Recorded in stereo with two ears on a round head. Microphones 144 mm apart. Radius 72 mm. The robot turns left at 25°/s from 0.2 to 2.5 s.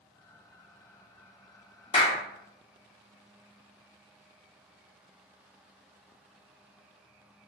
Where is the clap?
35° left (ahead or behind), 1.0 m.